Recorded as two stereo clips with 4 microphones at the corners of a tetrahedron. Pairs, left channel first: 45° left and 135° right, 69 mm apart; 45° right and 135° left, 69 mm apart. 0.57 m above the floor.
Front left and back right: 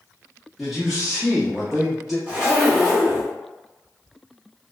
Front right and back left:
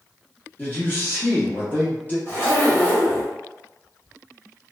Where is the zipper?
75° right, 1.4 m.